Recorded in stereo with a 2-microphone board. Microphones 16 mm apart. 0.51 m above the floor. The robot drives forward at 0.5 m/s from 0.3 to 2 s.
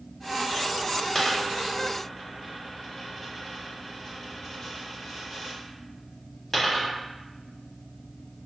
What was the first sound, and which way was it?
A dropped coin, 30° left (ahead or behind).